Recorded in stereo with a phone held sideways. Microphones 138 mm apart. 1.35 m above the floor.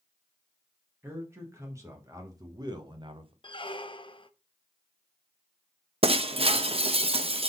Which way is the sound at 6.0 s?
45° right (ahead or behind).